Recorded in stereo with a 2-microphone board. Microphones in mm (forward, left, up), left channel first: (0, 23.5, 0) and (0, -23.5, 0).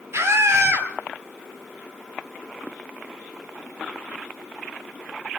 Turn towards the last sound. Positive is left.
turn(degrees=-65)  # may be behind; listen again after turning